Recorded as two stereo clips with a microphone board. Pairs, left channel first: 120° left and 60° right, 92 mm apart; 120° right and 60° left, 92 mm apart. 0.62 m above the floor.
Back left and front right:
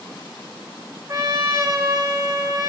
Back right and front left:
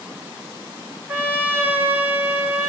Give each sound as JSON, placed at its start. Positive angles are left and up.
{"t": 1.1, "sound": "a trumpet", "azimuth_deg": -10, "distance_m": 3.5}